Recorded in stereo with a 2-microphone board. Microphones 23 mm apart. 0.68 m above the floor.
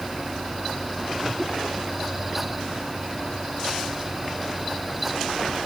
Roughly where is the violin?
No violin in this recording.